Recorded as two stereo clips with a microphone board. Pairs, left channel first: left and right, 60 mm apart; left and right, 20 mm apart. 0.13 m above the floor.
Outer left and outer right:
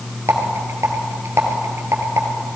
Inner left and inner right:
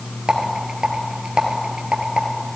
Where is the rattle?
45° right (ahead or behind), 1.8 m.